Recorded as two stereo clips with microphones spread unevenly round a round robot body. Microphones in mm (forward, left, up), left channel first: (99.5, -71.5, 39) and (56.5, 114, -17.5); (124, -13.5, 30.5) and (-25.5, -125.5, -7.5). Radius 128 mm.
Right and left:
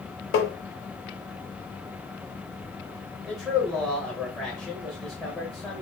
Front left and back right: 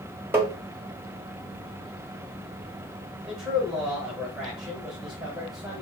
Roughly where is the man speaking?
Behind.